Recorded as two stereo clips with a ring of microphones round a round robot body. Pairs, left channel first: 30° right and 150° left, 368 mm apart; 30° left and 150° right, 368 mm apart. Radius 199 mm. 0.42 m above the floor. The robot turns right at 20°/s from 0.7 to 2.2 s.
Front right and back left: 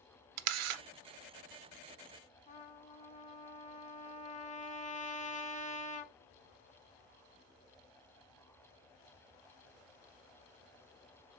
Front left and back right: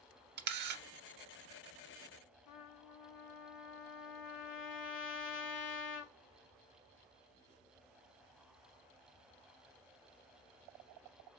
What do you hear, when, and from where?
0.4 s a camera shutter: 145° left, 0.6 m; by 0.8 s 150° left, 0.6 m
2.5 s a trumpet: 35° left, 0.7 m